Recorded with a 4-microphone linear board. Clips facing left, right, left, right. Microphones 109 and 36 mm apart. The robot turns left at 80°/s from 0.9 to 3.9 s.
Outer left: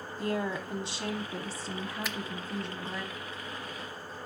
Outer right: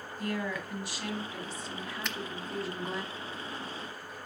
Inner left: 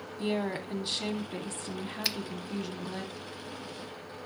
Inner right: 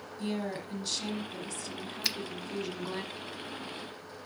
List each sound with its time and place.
0.2 s a woman speaking: 135° left, 1.1 m; by 3.0 s 35° right, 1.1 m
2.0 s a finger snap: 5° left (ahead or behind), 0.8 m; by 2.2 s centre (ahead or behind), 0.8 m